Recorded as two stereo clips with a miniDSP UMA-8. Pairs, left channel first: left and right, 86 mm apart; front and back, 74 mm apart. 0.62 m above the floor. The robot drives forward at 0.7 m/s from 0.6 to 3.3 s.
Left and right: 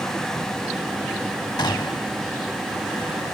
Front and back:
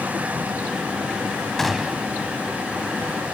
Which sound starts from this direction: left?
A gunshot, at 1.6 s.